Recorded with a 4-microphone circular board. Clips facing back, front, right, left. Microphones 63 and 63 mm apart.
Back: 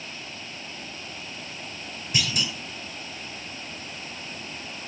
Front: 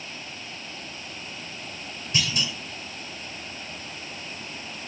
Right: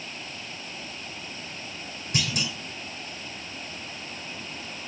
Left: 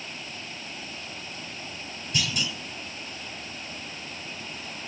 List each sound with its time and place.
2.1 s a clunk: 110° right, 3.5 m